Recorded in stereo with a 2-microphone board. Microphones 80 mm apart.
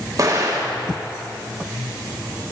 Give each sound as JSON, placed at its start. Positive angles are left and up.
{"t": 0.2, "sound": "an explosion", "side_deg": -50, "distance_m": 1.4}